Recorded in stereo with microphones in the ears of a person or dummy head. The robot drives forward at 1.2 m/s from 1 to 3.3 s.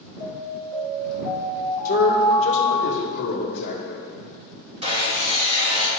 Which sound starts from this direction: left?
A man speaking, at 1.9 s.